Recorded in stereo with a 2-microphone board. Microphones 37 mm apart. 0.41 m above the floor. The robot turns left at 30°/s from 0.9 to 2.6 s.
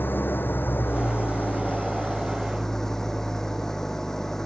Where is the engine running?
60° left; by 4.5 s 10° left.